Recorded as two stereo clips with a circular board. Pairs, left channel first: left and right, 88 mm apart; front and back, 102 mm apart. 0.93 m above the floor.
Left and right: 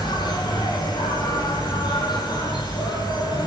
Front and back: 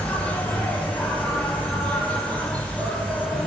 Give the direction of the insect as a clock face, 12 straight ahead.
9 o'clock.